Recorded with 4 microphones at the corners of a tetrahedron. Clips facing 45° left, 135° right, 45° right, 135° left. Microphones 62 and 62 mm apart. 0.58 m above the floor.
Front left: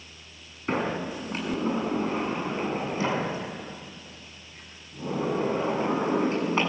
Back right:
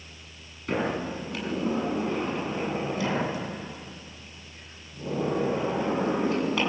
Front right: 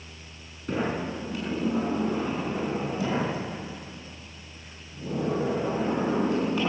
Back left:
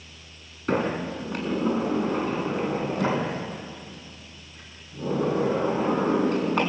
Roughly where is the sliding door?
Left.